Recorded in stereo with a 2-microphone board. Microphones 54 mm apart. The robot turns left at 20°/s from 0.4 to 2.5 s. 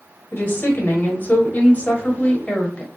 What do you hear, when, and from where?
0.3 s a woman speaking: 80° left, 1.1 m; by 2.9 s 35° left, 1.1 m